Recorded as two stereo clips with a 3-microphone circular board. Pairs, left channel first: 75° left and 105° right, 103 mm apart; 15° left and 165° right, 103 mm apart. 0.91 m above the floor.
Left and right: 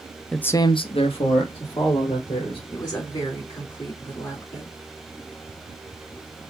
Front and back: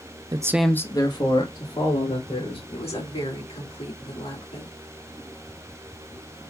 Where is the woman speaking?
20° left, 3.5 m.